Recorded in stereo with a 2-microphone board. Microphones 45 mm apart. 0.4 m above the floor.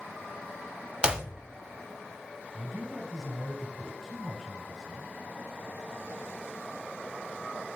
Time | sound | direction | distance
1.0 | a clap | 20° right (ahead or behind) | 0.6 m
2.5 | a man speaking | 5° left (ahead or behind) | 4 m